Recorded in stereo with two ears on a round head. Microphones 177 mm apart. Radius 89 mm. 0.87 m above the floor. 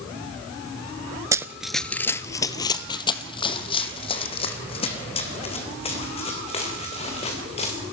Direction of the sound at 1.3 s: 15° right (ahead or behind).